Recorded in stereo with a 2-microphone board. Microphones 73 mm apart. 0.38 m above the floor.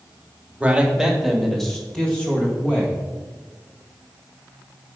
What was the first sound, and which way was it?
A man speaking, 15° right (ahead or behind).